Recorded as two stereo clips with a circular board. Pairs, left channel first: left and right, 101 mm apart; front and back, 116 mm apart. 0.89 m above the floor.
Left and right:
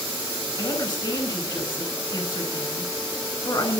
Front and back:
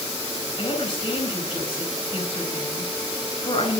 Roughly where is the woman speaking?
Ahead left.